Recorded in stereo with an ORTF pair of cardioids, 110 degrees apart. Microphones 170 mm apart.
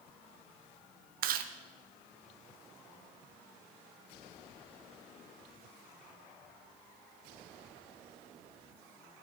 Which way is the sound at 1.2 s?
60° right.